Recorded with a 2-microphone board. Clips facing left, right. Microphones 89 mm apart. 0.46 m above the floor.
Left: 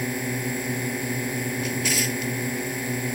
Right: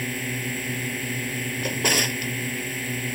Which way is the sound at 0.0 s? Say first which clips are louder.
Left 3 dB; 20° left (ahead or behind).